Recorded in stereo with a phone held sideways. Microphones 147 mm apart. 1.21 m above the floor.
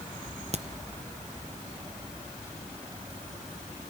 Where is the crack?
45° right (ahead or behind), 0.7 m.